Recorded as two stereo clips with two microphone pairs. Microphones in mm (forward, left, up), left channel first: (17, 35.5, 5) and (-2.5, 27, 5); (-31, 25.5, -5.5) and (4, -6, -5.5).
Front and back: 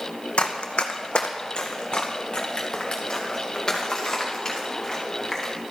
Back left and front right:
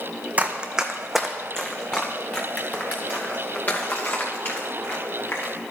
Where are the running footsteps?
20° left, 1.0 m; by 5.5 s 100° left, 4 m.